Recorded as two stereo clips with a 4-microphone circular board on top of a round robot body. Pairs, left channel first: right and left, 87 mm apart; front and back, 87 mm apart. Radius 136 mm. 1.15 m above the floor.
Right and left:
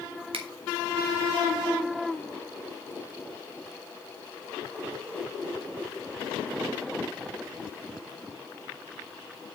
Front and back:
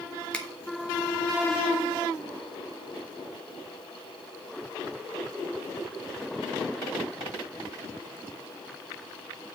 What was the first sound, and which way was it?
A finger snap, 80° left.